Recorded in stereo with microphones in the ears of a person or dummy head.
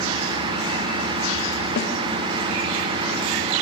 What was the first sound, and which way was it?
A snare drum, 65° left (ahead or behind).